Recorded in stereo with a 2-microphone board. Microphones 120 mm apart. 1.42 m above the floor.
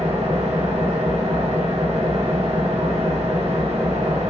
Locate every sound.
0.0 s an engine running: 55° right (ahead or behind), 1.0 m